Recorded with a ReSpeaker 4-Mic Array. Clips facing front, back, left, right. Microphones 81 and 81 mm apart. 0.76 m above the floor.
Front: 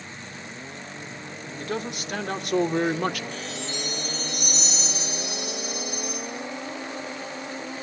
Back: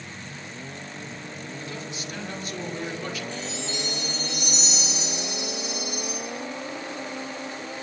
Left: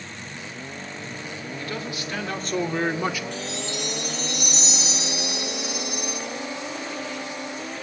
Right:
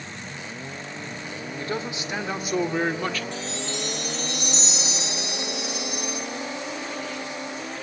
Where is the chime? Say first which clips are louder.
Back 1 dB, even; 35° right, 8 m.